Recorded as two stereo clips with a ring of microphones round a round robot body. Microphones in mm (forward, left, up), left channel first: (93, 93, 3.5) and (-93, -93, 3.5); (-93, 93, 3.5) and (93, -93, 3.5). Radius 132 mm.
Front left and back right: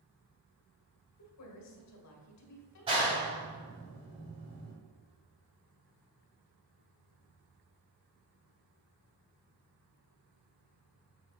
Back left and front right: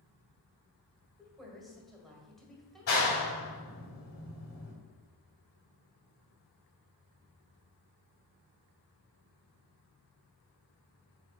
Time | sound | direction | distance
1.2 | a woman speaking | 45° left | 1.8 m
2.9 | a clap | 155° left | 2.5 m